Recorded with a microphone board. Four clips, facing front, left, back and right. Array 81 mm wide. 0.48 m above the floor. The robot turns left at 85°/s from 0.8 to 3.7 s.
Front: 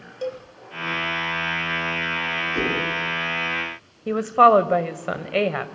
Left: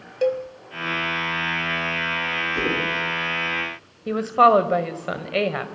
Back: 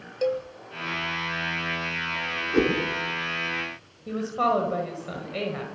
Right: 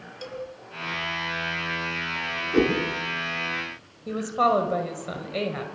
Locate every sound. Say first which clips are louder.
0.2 s a cowbell: left 14 dB, back 4 dB; 110° left, 1.4 m
2.5 s a whoosh: right 6 dB, back 4 dB; 135° right, 6 m; by 2.8 s 155° right, 6 m
4.1 s a woman speaking: left 7 dB, front 10 dB; 25° left, 2 m